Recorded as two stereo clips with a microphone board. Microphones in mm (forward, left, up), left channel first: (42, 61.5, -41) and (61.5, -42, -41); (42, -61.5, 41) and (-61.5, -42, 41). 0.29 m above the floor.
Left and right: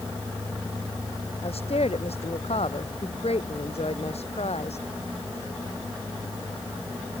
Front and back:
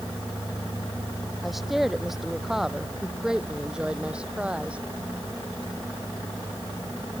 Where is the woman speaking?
80° left; by 4.8 s 90° left.